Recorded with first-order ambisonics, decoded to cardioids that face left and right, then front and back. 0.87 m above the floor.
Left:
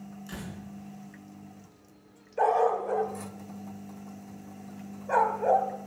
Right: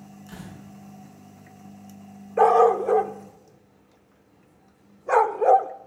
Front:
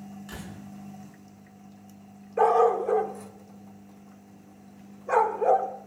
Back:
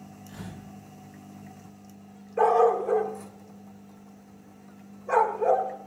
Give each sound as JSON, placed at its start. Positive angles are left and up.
{"t": 0.3, "sound": "a door slam", "azimuth_deg": -20, "distance_m": 8.0}
{"t": 2.4, "sound": "a dog barking", "azimuth_deg": -85, "distance_m": 0.8}